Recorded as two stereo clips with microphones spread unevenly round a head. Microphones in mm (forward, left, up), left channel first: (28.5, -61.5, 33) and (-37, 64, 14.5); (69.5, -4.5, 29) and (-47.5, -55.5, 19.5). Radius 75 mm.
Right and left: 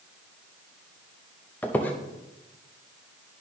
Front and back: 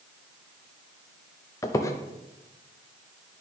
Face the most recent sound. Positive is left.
turn(degrees=-10)